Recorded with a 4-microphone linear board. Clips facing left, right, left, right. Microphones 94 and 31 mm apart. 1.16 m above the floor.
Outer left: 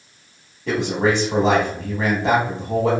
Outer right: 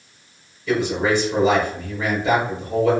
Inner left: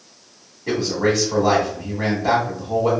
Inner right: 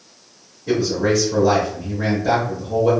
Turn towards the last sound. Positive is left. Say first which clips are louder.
# even, inner right 1 dB
turn(degrees=75)  # may be behind; listen again after turning